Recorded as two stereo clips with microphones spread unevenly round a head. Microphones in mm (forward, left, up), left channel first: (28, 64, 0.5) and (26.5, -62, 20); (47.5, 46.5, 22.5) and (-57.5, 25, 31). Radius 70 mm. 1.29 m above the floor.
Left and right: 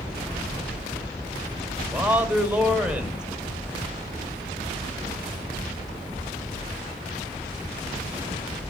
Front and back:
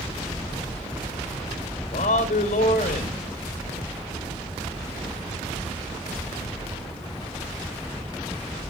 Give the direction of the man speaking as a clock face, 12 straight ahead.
12 o'clock.